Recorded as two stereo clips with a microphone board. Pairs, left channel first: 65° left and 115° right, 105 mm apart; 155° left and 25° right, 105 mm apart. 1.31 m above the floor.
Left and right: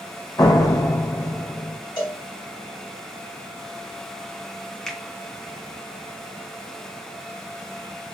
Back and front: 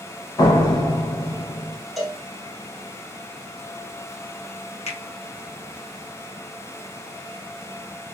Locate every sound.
0.4 s a door slam: 120° left, 0.7 m
2.0 s a cowbell: 65° left, 1.2 m
4.9 s a finger snap: 150° left, 0.9 m